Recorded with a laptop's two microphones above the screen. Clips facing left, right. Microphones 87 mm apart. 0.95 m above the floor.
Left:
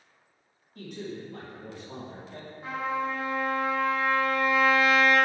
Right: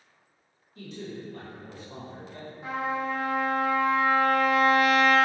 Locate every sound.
0.8 s a man speaking: 50° left (ahead or behind), 1.7 m; by 2.5 s 55° left (ahead or behind), 1.1 m
2.6 s a trumpet: 20° right (ahead or behind), 2.0 m